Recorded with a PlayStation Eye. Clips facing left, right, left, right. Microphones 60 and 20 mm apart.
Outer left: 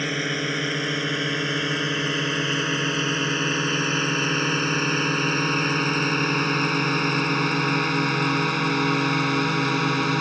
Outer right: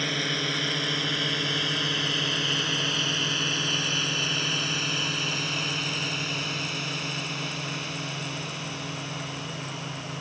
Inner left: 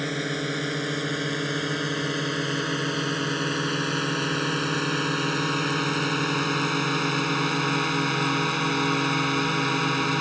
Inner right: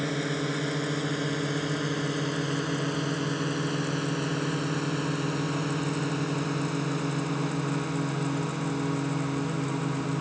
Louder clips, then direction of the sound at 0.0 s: Outer left 3 dB, inner left 1 dB; 20° left (ahead or behind).